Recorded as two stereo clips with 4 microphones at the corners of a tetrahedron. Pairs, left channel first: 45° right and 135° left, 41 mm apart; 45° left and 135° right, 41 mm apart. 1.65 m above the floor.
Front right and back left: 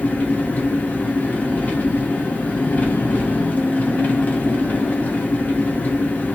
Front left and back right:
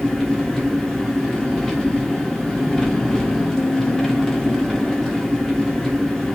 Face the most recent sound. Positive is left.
turn(degrees=-30)